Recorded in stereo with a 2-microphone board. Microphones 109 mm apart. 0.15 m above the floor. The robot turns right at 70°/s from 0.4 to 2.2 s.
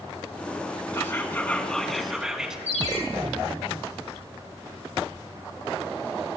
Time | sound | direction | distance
0.9 | whispering | 25° left (ahead or behind) | 1.5 m
2.7 | a ringtone | 75° right (ahead or behind) | 3 m